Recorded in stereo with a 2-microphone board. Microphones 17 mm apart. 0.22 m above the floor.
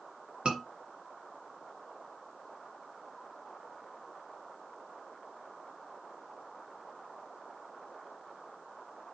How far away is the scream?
About 3 m.